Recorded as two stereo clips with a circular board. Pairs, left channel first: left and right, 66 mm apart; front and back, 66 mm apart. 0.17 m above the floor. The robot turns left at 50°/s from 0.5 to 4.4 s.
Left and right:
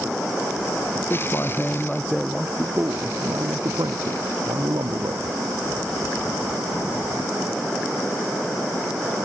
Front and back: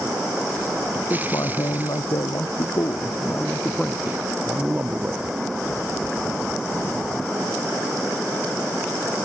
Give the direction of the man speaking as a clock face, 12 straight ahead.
10 o'clock.